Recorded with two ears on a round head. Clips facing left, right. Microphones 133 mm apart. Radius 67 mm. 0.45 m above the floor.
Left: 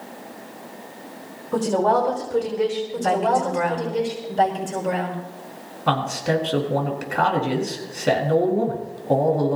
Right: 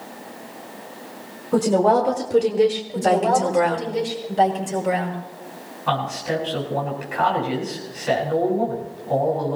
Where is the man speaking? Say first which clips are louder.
Left 2 dB; 55° left (ahead or behind), 5 m.